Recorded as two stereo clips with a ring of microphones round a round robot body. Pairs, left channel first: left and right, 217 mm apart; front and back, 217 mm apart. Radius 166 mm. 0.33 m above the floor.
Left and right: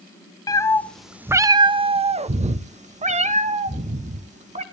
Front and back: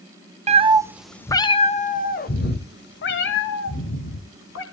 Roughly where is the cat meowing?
Behind left.